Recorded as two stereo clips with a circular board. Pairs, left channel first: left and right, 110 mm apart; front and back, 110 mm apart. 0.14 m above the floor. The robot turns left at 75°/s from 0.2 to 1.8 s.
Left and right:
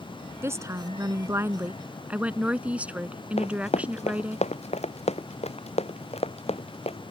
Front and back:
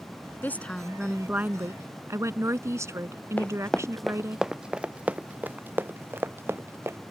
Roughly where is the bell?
No bell in this recording.